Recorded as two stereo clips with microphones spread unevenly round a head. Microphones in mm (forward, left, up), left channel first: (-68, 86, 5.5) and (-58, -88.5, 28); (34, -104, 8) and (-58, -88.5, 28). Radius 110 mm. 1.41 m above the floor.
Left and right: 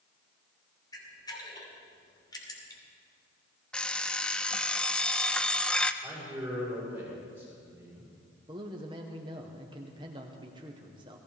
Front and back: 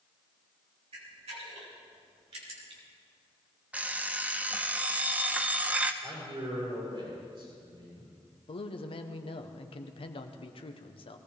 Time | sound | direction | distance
0.9 | a camera shutter | 165° left | 3 m
3.7 | an alarm clock | 170° right | 0.5 m
6.0 | a man speaking | 165° right | 7 m
8.5 | a man speaking | 15° right | 1.0 m